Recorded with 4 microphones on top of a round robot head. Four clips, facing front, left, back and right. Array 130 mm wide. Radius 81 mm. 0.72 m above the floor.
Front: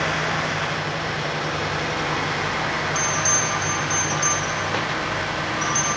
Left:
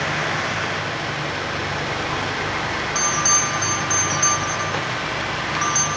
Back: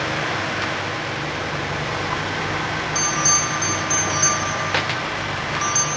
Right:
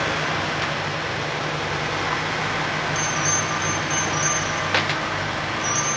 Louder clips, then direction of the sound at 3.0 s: Left 2 dB, back 1 dB; 110° left.